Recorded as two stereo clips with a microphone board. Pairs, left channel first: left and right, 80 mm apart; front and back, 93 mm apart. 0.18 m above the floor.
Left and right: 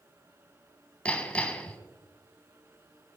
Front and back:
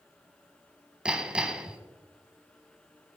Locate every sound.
1.1 s hammering: 125° left, 0.9 m